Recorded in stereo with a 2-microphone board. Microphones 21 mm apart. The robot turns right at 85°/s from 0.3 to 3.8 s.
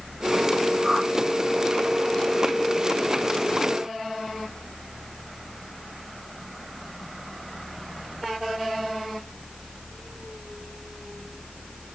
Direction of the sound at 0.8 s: 30° right (ahead or behind).